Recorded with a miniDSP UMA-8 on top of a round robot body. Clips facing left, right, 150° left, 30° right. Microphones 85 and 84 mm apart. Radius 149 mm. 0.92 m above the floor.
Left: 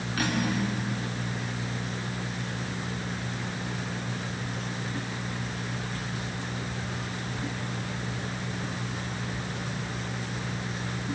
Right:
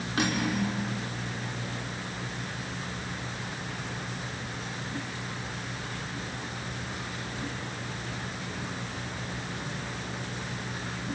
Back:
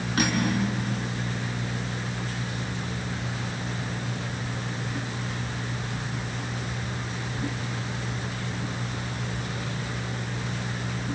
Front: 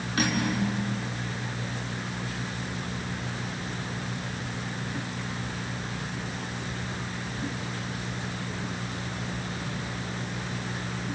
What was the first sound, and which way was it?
Cutlery clinking, 155° right.